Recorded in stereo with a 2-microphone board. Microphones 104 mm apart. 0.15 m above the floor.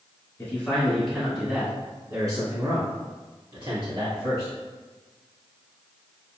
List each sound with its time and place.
0.4 s a man speaking: 20° left (ahead or behind), 1.2 m; by 4.5 s 65° right (ahead or behind), 2.5 m